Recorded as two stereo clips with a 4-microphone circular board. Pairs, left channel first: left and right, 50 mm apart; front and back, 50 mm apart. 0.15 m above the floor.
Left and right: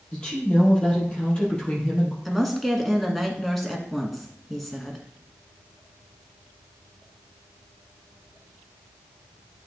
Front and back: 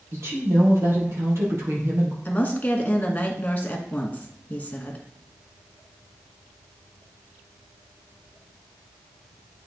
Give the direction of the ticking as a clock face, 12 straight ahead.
I don't hear ticking.